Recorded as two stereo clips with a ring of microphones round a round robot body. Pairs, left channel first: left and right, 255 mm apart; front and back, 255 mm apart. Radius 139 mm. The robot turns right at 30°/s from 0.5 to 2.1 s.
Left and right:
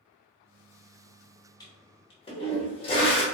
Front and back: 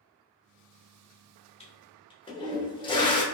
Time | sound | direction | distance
1.6 | a toilet flushing | 35° left | 0.8 m